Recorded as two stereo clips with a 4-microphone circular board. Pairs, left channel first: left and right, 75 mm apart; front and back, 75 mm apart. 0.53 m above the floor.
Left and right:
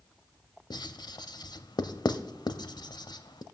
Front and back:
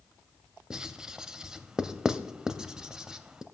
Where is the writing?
100° left, 0.6 m.